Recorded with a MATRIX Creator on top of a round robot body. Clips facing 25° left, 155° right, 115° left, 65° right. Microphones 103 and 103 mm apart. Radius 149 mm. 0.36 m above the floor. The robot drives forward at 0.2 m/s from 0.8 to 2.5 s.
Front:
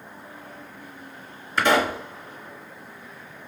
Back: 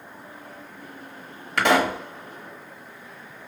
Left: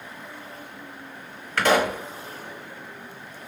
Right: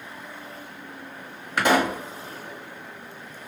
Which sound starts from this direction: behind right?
A pop, at 1.6 s.